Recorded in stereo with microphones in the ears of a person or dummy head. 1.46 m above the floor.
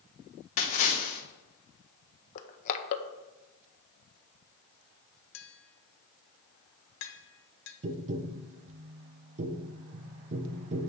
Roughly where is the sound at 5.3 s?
Left.